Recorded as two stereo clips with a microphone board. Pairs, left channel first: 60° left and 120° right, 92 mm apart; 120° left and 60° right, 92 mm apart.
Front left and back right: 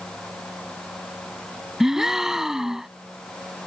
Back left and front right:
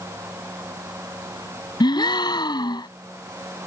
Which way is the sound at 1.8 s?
155° left.